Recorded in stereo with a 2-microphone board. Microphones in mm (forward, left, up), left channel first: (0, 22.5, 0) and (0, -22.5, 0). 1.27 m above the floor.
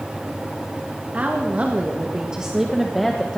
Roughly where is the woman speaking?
Right.